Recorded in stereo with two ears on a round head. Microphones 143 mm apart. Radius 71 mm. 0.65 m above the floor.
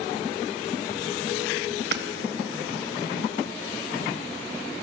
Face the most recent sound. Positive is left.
turn(degrees=-75)  # may be behind; listen again after turning